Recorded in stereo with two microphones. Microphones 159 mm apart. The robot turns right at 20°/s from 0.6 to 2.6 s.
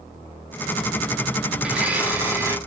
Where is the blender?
5° right (ahead or behind), 0.8 m; by 2.6 s 15° right (ahead or behind), 0.8 m.